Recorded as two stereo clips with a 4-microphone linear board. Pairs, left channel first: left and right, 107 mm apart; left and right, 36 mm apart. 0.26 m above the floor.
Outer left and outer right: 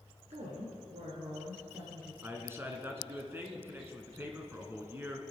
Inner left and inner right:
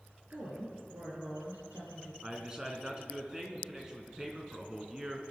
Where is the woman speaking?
75° right (ahead or behind), 4.5 m.